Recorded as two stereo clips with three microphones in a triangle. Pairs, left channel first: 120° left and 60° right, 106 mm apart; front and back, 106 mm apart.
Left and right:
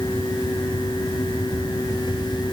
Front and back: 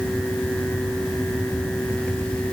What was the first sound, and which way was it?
Only background noise.